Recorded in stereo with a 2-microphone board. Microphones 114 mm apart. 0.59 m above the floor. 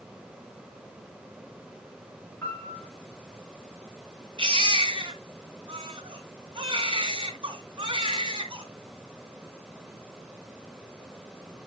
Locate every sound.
2.4 s a piano: 20° left (ahead or behind), 4 m
4.4 s a baby crying: 45° right (ahead or behind), 2 m